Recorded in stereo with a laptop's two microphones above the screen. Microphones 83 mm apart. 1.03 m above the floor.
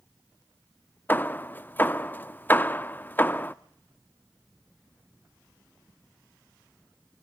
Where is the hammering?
25° left (ahead or behind), 0.6 m.